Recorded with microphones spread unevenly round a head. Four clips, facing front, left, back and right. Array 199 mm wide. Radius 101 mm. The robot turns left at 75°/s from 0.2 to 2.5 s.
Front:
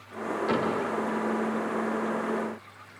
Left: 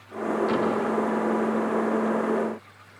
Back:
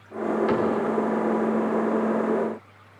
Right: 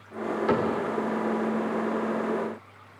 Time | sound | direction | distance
0.5 | a cupboard door | 90° right | 5.5 m